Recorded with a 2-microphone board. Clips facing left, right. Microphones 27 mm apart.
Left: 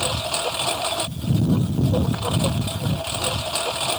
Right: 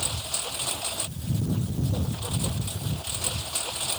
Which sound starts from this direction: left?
A lawn mower, at 0.0 s.